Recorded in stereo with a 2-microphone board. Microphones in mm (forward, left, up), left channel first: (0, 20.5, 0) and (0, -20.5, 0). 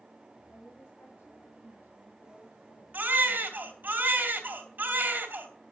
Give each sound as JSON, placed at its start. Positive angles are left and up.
{"t": 0.5, "sound": "a woman speaking", "side_deg": 65, "distance_m": 4.5}
{"t": 2.9, "sound": "a baby crying", "side_deg": -45, "distance_m": 3.0}